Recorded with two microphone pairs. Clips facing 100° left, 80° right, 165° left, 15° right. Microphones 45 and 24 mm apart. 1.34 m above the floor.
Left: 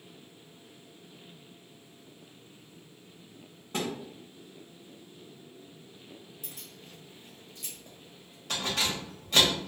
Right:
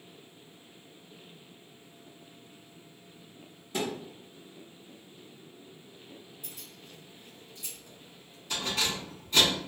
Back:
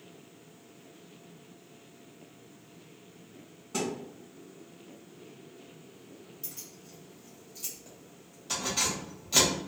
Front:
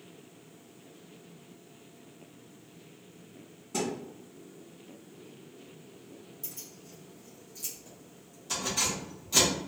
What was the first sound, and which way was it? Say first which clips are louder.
A thud: right 1 dB, even; 95° left.